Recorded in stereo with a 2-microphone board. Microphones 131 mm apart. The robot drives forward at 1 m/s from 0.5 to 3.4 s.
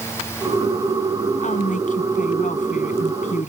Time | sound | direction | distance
1.4 | a woman speaking | 75° left (ahead or behind) | ?